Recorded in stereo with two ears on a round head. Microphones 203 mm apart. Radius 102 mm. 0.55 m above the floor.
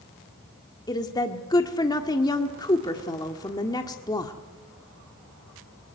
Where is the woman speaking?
15° left (ahead or behind), 1.5 m.